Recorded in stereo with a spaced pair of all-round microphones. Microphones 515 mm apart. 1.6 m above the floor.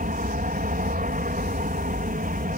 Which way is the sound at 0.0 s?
15° right (ahead or behind).